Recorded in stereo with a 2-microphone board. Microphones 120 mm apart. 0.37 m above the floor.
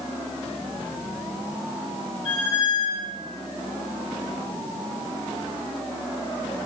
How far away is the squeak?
About 1.7 m.